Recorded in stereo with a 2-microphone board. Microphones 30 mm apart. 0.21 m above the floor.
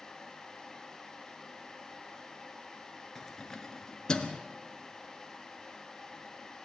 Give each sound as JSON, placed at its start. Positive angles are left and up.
{"t": 3.1, "sound": "keys jangling", "side_deg": 10, "distance_m": 2.0}